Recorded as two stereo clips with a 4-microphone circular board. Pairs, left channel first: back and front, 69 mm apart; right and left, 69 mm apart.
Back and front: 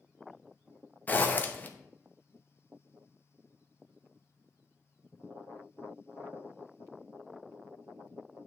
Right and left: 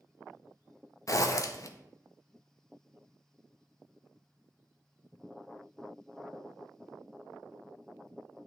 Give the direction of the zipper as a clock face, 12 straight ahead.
4 o'clock.